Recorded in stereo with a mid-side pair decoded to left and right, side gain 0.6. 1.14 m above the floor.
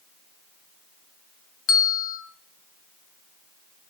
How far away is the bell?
About 2.5 m.